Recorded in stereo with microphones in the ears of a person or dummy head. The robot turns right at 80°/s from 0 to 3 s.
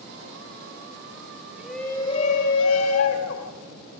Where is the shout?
10° right, 1.2 m; by 3.5 s 105° left, 1.2 m.